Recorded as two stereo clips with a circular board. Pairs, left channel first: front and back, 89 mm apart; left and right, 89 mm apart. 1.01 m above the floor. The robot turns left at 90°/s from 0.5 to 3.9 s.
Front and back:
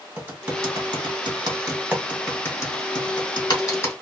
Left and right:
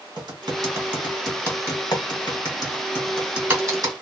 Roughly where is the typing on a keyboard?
Behind right.